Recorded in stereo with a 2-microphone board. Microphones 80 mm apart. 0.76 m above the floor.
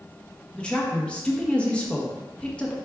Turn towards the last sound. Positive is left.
turn(degrees=10)  # may be behind; listen again after turning